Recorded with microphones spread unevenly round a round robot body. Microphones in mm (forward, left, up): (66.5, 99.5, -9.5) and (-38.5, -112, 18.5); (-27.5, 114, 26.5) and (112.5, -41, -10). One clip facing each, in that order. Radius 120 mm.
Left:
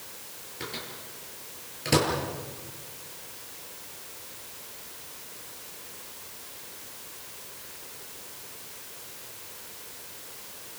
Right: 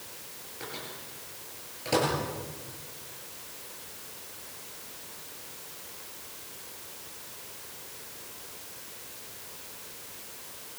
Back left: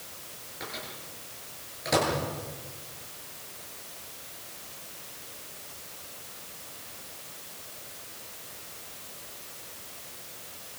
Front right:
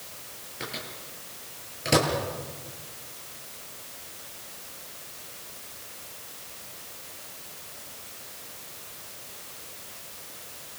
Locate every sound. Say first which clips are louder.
0.6 s a microwave: left 2 dB, front right 3 dB; 5° left, 9 m